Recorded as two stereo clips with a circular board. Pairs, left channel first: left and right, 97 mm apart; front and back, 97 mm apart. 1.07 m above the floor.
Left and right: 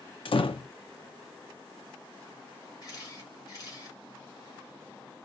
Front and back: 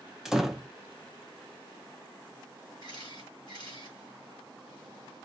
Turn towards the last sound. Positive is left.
turn(degrees=40)